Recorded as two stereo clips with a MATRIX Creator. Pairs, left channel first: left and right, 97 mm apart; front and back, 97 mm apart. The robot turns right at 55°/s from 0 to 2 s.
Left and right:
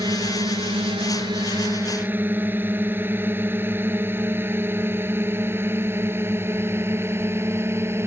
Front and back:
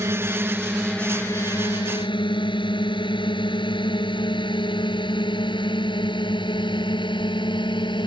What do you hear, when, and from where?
0.0 s a drone: 130° right; by 8.1 s 30° right